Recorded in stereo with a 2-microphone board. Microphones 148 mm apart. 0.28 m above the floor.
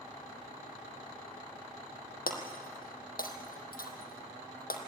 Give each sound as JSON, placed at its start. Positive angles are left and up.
{"t": 2.3, "sound": "breaking glass", "side_deg": 85, "distance_m": 1.9}